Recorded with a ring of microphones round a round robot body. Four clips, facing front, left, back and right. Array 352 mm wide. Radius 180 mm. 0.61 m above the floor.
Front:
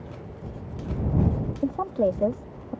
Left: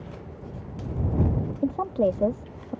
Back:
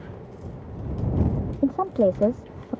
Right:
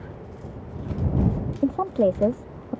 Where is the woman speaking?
145° right.